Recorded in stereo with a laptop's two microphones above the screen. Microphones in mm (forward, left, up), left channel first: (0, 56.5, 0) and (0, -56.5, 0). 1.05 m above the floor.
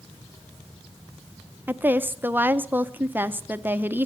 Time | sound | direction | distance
1.7 | a woman speaking | 15° right (ahead or behind) | 0.8 m